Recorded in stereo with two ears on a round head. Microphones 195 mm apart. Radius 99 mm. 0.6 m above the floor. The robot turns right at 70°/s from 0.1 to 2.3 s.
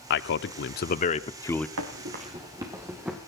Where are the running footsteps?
70° right (ahead or behind), 3.5 m; by 3.2 s 5° right (ahead or behind), 3.5 m.